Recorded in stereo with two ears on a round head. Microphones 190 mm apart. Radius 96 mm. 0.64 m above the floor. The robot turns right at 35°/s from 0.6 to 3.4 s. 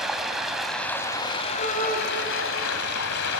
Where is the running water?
Straight ahead, 1.8 m; by 3.4 s 95° left, 1.8 m.